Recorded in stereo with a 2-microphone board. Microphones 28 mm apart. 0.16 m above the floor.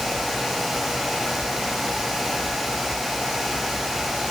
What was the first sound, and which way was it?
Only background noise.